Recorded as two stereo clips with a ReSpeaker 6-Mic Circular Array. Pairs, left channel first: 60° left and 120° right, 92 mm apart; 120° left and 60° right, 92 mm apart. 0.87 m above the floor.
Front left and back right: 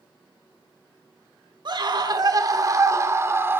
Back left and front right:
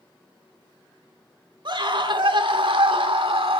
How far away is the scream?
About 2.5 m.